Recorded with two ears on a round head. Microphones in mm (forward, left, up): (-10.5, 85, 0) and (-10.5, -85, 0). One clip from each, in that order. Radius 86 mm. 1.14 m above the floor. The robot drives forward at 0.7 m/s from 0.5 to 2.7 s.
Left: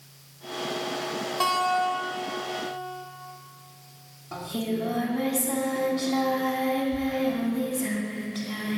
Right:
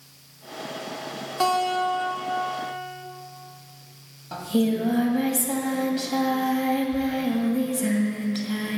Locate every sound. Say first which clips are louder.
1.4 s a guitar: right 2 dB; 10° right (ahead or behind), 2 m; by 3.1 s 20° right (ahead or behind), 1.2 m
4.3 s singing: right 6 dB; 40° right (ahead or behind), 2 m